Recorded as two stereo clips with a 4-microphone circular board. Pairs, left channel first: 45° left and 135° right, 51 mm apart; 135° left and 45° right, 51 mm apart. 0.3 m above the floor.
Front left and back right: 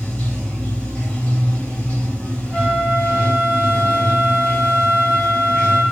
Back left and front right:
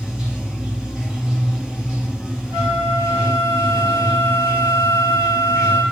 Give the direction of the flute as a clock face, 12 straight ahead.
2 o'clock.